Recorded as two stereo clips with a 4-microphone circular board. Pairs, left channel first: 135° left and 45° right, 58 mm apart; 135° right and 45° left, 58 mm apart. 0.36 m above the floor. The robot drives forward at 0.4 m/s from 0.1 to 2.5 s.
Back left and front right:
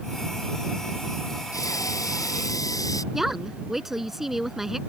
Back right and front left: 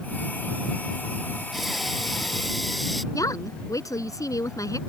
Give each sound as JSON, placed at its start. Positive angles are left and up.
{"t": 1.5, "sound": "breathing", "azimuth_deg": 135}
{"t": 3.1, "sound": "a woman speaking", "azimuth_deg": -125}